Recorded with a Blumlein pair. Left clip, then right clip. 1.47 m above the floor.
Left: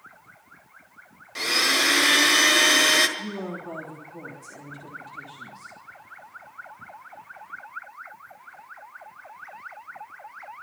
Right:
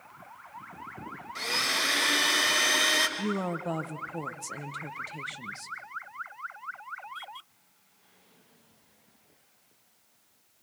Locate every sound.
1.4 s a blender: 60° left, 1.6 m
3.2 s a woman speaking: 60° right, 1.6 m